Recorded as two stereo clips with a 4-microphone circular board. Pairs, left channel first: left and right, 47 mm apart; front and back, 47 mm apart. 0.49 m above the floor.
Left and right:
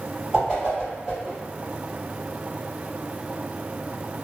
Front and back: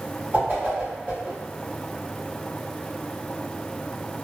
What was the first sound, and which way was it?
A whoosh, 160° right.